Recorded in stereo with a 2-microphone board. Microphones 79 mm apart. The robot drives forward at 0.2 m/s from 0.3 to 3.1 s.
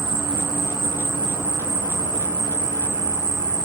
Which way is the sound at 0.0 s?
75° right (ahead or behind).